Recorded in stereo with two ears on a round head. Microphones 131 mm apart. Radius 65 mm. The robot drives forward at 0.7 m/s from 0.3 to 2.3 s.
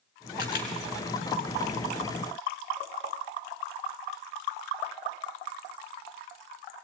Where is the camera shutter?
70° left (ahead or behind), 3.5 m.